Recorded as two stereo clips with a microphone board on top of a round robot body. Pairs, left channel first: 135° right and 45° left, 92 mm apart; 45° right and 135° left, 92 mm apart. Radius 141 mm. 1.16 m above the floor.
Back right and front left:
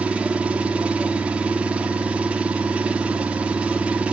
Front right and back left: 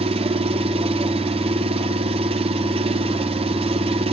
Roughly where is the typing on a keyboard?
No typing on a keyboard in this recording.